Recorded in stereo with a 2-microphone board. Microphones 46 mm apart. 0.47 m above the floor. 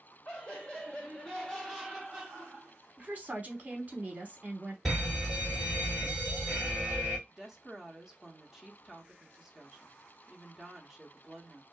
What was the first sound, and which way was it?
Laughter, 25° left (ahead or behind).